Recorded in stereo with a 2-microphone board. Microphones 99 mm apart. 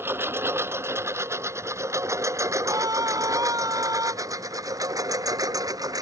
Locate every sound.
0.0 s a lawn mower: 25° right (ahead or behind); by 6.0 s 40° right (ahead or behind)
2.6 s a scream: 40° right (ahead or behind)